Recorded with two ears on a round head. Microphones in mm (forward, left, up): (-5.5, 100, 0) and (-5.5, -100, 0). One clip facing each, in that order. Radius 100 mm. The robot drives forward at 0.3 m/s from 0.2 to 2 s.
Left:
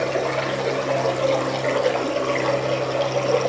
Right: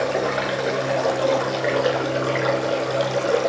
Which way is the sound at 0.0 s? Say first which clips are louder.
Even; 15° right (ahead or behind).